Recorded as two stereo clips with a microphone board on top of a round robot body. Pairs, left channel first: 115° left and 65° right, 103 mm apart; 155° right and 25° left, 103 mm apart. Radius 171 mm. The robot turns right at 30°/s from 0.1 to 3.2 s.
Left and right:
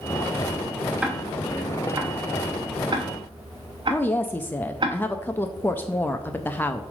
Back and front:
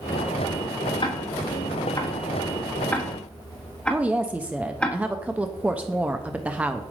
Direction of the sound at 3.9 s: 75° left.